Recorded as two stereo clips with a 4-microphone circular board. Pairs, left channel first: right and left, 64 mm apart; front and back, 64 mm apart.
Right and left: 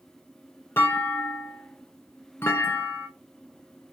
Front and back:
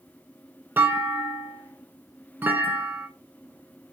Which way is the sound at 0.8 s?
130° right.